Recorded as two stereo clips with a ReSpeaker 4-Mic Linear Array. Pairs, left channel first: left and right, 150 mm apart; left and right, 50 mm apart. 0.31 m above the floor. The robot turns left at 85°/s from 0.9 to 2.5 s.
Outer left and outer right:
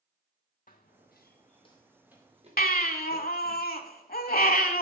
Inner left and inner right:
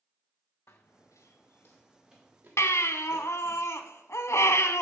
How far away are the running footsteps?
About 1.3 m.